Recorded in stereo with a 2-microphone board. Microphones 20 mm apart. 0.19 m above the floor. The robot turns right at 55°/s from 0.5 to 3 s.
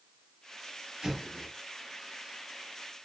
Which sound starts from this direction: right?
An explosion, at 1.0 s.